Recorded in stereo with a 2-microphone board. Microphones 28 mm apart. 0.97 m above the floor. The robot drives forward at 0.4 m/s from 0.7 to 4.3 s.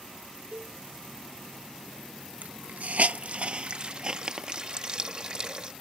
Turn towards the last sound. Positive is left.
turn(degrees=-35)  # may be behind; listen again after turning